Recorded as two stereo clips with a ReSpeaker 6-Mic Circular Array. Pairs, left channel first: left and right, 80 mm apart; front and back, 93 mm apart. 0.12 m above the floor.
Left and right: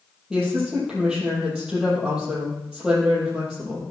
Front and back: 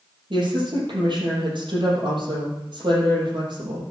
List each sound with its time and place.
0.3 s a woman speaking: 170° right, 4.5 m